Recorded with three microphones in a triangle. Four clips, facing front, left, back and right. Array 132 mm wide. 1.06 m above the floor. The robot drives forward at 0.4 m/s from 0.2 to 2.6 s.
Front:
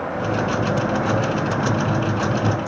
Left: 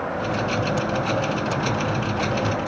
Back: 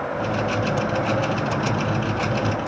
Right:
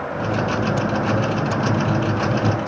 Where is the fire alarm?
I don't hear a fire alarm.